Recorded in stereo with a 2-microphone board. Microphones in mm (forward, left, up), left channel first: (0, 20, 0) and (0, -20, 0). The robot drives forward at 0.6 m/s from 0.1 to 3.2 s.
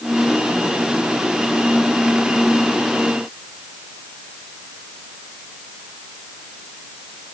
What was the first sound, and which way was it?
Only background noise.